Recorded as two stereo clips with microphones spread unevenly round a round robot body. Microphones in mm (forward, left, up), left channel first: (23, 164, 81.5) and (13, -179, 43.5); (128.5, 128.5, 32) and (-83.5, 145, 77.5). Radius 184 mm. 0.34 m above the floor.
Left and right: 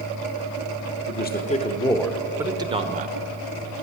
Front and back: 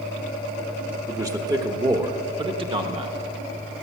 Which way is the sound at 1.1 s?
90° left.